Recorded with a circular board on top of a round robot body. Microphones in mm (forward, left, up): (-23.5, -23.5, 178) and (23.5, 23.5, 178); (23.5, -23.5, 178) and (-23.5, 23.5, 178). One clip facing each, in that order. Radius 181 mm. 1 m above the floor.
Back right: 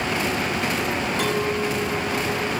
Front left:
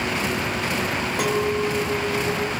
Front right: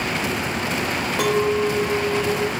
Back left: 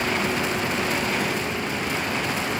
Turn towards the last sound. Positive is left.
turn(degrees=-35)